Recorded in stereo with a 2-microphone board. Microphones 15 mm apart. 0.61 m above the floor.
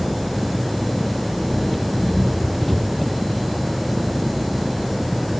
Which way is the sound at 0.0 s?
10° left (ahead or behind).